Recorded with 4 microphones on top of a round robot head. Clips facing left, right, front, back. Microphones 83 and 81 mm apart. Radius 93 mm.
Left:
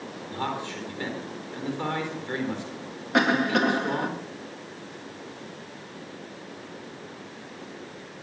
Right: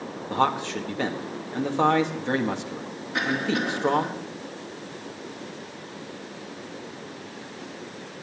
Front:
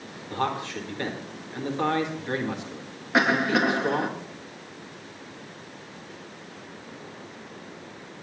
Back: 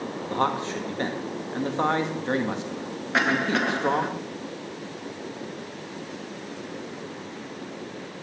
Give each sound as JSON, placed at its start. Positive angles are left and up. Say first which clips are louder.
{"t": 0.3, "sound": "a man speaking", "louder": "right 8 dB, back 3 dB", "azimuth_deg": -115, "distance_m": 1.9}
{"t": 3.1, "sound": "a cough", "louder": "left 4 dB, front 2 dB", "azimuth_deg": 80, "distance_m": 2.0}